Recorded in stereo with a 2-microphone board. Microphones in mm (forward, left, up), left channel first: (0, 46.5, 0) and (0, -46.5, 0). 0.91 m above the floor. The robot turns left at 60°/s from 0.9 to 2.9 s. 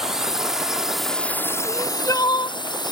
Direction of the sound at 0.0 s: 175° right.